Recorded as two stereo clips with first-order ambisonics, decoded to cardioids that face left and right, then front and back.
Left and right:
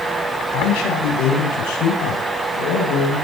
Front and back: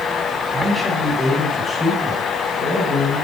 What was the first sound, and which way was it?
A man speaking, 95° left.